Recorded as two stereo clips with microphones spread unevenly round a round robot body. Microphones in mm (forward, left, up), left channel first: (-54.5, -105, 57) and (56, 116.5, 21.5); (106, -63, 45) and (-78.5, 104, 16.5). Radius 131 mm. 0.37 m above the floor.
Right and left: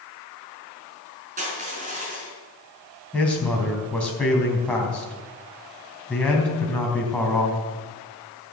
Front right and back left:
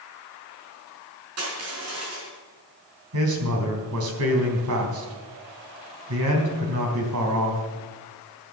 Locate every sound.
1.4 s crushing: 120° left, 5.5 m
3.1 s a man speaking: 155° left, 3.5 m